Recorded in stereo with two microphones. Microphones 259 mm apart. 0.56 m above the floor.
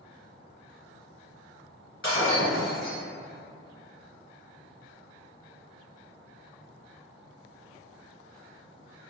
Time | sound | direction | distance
2.0 | breaking glass | 50° left (ahead or behind) | 2.0 m